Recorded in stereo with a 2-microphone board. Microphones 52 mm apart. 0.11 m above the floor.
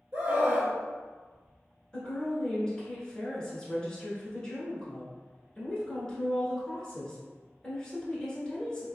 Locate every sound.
0.1 s a scream: 30° right (ahead or behind), 1.3 m
1.9 s a woman speaking: 15° left (ahead or behind), 1.1 m